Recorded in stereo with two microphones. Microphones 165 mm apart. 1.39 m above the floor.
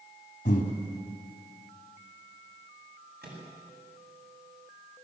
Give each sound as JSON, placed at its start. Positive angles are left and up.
{"t": 0.5, "sound": "breathing", "side_deg": 55, "distance_m": 3.0}
{"t": 3.2, "sound": "a microwave", "side_deg": -80, "distance_m": 9.0}